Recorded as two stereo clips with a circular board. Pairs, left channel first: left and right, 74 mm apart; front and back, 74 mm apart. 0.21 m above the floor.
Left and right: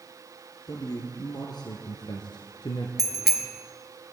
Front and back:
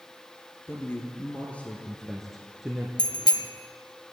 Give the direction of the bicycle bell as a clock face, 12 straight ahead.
12 o'clock.